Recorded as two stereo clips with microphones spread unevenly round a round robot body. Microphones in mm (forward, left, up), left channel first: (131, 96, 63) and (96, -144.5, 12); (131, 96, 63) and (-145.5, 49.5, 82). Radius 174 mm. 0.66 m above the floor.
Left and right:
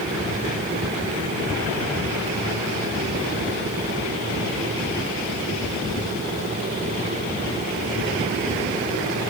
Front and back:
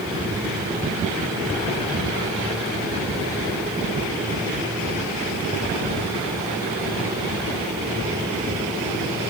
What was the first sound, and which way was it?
Only background noise.